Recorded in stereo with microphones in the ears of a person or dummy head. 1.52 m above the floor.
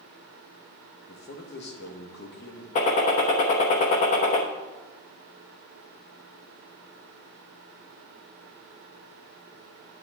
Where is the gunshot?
45° left (ahead or behind), 1.0 m.